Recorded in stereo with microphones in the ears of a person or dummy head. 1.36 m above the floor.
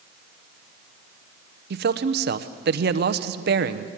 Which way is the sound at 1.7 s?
55° right (ahead or behind).